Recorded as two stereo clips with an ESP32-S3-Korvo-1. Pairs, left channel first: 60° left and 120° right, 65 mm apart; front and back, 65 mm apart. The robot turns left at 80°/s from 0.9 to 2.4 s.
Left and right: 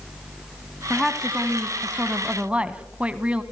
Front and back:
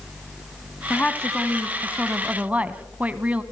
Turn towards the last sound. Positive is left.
turn(degrees=-155)